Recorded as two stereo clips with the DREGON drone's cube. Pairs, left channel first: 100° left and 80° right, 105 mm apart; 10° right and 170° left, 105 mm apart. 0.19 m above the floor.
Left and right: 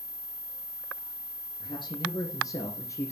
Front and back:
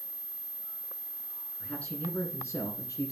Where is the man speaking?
70° left, 2.5 m; by 3.1 s 40° left, 2 m.